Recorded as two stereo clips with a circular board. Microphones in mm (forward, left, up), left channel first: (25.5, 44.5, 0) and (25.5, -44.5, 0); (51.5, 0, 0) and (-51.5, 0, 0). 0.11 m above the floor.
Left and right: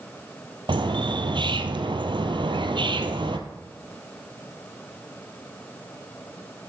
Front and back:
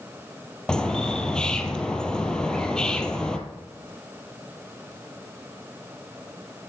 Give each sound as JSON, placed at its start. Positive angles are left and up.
{"t": 0.7, "sound": "a bird", "azimuth_deg": -80, "distance_m": 1.1}